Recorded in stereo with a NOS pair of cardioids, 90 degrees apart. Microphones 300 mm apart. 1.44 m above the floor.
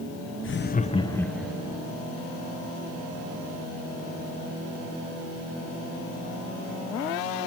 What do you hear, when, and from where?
0.4 s laughter: 40° left, 1.2 m; by 1.8 s 10° right, 1.8 m